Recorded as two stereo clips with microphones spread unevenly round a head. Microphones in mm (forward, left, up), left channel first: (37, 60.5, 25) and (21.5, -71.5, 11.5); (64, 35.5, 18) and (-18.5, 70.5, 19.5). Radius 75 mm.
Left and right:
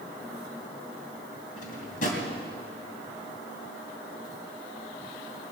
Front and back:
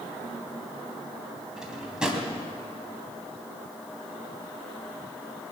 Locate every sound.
1.6 s a drawer: 75° left, 2.5 m